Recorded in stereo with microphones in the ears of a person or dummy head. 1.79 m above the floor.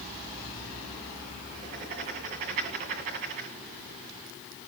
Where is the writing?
35° right (ahead or behind), 2 m.